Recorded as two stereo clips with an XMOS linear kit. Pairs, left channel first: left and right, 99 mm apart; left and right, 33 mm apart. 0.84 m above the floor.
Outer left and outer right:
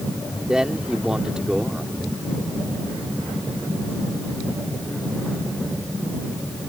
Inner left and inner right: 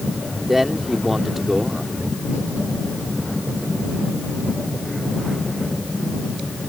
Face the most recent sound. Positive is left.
turn(degrees=-5)  # may be behind; listen again after turning